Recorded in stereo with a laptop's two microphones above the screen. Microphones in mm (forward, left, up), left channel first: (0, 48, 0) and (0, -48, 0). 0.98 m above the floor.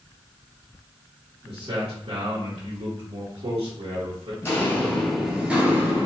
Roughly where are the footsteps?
Left.